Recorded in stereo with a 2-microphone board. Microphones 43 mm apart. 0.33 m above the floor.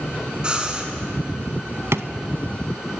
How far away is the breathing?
About 3 m.